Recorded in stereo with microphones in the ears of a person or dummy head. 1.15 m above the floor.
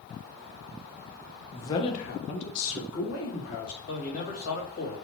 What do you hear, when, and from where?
1.5 s a man speaking: 5° left (ahead or behind), 1.0 m; by 3.8 s 75° left (ahead or behind), 3 m
3.9 s a man speaking: 45° left (ahead or behind), 2.5 m